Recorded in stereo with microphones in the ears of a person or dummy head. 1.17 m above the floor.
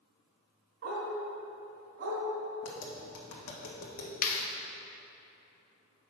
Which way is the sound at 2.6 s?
65° left (ahead or behind).